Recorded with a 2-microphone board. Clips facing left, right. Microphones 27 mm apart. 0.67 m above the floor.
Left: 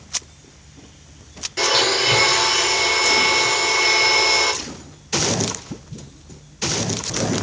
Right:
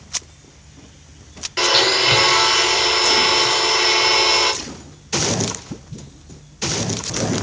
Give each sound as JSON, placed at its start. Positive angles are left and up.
{"t": 1.6, "sound": "a blender", "side_deg": -35, "distance_m": 1.1}